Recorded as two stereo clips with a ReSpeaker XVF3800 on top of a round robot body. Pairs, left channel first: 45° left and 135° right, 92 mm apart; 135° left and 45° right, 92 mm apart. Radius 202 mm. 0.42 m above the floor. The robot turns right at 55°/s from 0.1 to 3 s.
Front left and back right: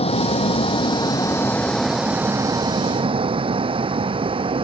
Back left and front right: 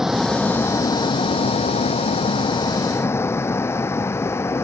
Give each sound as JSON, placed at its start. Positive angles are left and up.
{"t": 0.0, "sound": "a vehicle", "azimuth_deg": 40}